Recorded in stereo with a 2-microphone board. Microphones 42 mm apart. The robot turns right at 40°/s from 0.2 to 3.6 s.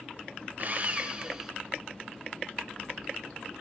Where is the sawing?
55° right, 1.8 m; by 1.5 s 20° right, 1.8 m.